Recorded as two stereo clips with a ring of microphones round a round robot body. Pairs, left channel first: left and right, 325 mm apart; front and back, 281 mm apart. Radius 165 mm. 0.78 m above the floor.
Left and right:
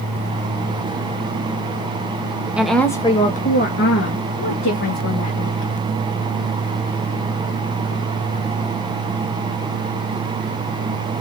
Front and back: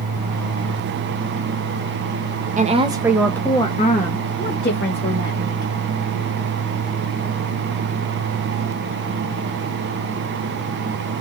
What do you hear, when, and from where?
2.6 s a woman speaking: 170° right, 1.0 m; by 5.7 s 45° left, 2.5 m